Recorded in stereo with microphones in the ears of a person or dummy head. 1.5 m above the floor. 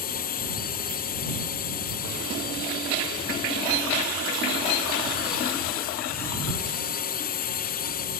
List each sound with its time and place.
0.0 s a drone: 40° left (ahead or behind)